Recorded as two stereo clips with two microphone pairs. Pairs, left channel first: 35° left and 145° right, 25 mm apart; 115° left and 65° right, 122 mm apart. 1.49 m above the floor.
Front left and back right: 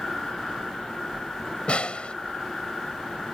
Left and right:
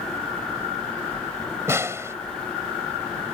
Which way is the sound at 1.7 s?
5° left.